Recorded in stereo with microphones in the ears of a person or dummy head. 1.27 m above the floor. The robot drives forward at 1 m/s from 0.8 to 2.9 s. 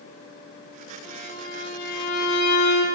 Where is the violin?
50° left (ahead or behind), 5.5 m; by 2.9 s 70° left (ahead or behind), 4.5 m.